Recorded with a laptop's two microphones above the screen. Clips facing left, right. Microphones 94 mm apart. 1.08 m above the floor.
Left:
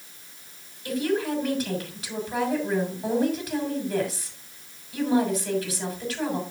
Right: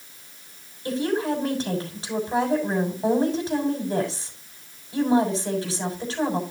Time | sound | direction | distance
0.8 | a woman speaking | 30° right (ahead or behind) | 6.5 m